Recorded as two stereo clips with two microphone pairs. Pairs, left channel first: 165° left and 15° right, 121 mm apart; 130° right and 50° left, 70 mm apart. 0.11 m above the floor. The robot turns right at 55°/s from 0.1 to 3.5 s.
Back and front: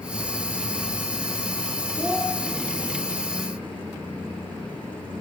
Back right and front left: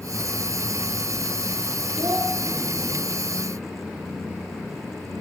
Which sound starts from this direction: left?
A child speaking, at 2.0 s.